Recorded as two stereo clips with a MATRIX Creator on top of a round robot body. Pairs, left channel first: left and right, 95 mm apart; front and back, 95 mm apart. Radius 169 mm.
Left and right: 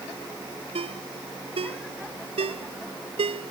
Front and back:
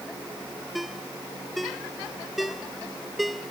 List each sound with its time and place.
0.8 s a ringtone: 90° right